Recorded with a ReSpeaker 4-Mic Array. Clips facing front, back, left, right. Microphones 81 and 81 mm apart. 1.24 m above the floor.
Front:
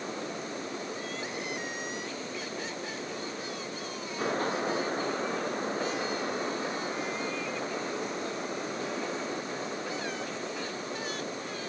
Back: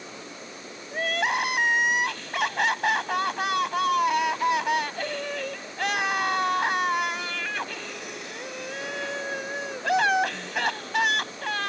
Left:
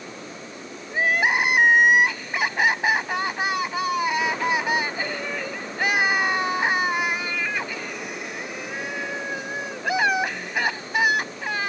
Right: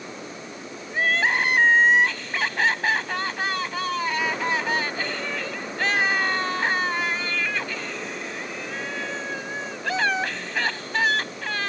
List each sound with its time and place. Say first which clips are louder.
0.9 s crying: back 10 dB, left 1 dB; 165° left